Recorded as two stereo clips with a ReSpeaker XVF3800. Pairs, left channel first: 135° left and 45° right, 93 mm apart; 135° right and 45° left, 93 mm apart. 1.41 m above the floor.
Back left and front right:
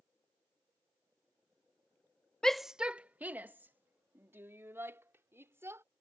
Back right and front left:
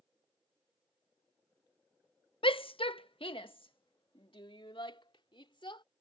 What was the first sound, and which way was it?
A shout, 145° right.